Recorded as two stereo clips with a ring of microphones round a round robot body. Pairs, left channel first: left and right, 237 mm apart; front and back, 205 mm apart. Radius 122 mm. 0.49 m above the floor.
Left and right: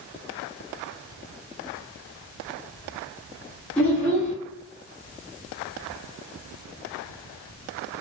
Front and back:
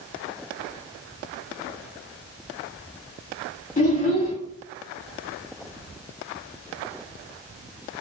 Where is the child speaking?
5° left, 0.7 m.